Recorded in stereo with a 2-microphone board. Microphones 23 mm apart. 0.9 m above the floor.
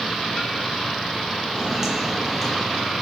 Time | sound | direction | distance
1.5 | footsteps | 20° right (ahead or behind) | 1.0 m